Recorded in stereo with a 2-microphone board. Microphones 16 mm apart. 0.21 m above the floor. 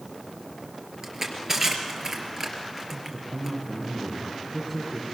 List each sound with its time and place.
1.0 s crushing: 25° right (ahead or behind), 3 m
2.9 s a man speaking: 5° left (ahead or behind), 4 m